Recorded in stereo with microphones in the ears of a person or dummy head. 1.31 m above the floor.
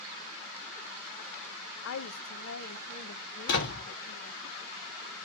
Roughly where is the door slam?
Left.